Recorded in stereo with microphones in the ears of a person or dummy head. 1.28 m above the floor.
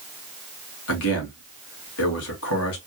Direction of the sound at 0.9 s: 85° left.